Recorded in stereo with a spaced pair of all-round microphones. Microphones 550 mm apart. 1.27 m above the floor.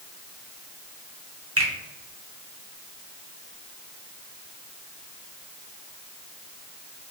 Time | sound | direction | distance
1.6 | a finger snap | 25° right (ahead or behind) | 0.9 m